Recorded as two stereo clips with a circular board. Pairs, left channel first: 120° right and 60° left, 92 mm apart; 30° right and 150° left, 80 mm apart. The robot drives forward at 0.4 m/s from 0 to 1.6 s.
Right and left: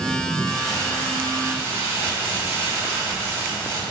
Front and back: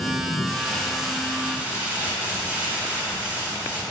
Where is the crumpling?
45° left, 0.9 m; by 3.8 s 95° left, 0.8 m.